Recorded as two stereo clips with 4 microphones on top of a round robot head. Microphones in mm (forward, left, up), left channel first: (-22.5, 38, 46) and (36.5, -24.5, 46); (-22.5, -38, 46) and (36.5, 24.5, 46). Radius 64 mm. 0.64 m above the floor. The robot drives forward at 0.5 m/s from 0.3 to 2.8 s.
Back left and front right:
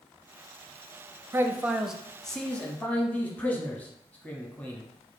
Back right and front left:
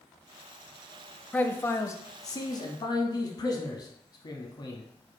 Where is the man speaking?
75° right, 0.6 m; by 4.8 s 155° right, 0.9 m.